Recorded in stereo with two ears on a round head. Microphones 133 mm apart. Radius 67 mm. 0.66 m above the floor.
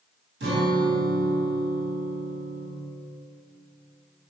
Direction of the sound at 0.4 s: 85° right.